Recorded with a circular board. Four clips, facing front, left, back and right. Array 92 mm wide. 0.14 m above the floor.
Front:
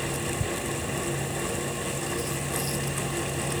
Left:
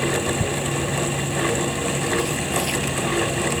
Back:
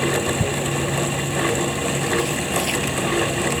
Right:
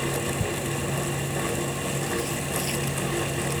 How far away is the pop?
No pop in this recording.